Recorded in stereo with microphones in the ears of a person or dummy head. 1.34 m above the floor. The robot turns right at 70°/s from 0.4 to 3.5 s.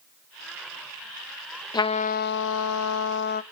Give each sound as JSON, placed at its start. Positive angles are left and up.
{"t": 1.7, "sound": "a trumpet", "azimuth_deg": 20, "distance_m": 0.8}